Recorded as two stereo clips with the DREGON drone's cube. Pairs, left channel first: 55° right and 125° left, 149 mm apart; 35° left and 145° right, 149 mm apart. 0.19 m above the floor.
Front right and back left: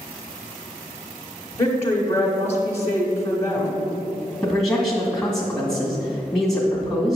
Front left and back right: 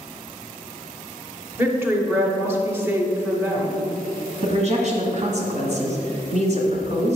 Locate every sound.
1.6 s a woman speaking: 95° right, 1.2 m
4.4 s a man speaking: 140° right, 1.9 m